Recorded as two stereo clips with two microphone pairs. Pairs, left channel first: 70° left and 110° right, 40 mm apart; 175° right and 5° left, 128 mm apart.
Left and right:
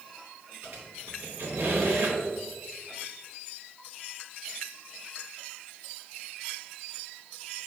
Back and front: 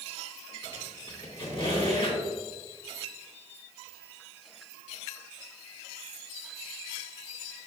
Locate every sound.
0.6 s a squeak: 135° right, 2.5 m